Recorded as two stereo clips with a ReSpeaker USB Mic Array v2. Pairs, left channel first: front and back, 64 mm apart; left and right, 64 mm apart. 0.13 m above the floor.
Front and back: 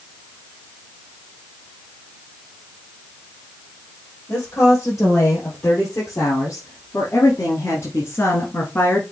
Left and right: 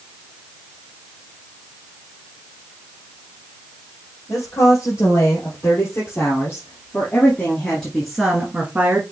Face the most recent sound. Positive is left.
turn(degrees=-45)